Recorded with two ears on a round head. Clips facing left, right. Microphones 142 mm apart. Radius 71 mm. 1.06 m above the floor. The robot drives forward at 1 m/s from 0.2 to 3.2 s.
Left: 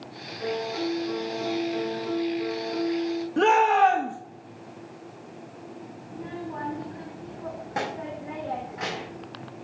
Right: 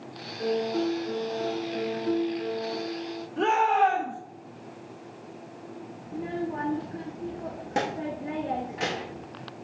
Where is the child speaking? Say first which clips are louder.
Right 5 dB; 30° right (ahead or behind), 0.9 m.